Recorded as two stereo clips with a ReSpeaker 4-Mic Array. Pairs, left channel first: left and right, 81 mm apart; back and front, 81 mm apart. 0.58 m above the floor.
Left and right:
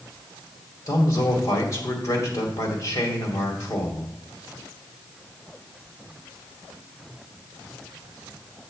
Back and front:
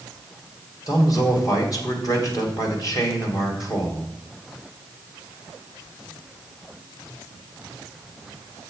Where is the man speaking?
140° left, 2.5 m.